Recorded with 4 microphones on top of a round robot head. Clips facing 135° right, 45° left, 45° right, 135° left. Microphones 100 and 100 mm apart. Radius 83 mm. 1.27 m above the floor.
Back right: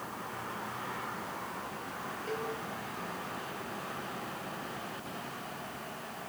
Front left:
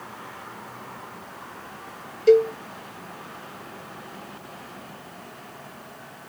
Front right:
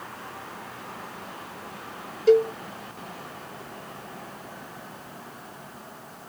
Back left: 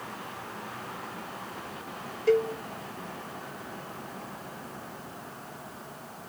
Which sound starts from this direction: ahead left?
A cowbell, at 2.3 s.